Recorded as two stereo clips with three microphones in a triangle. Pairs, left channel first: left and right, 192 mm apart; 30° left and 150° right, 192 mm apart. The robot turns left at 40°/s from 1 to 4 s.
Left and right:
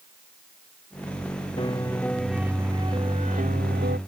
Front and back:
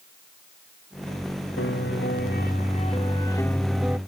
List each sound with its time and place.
1.6 s a piano: 30° left; by 4.0 s 70° right